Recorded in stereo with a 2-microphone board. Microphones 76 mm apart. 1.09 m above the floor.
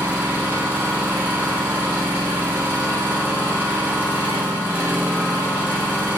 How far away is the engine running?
About 1.6 m.